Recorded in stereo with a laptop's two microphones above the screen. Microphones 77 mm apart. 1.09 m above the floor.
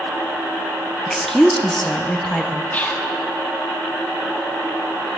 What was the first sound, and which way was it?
A woman speaking, 5° left (ahead or behind).